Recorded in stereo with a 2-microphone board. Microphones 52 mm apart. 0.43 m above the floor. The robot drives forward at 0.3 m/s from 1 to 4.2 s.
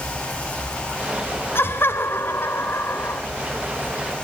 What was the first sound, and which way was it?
Laughter, 50° left (ahead or behind).